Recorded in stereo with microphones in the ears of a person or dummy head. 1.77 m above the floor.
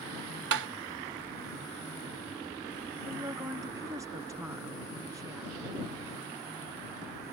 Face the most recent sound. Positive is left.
turn(degrees=-15)  # may be behind; listen again after turning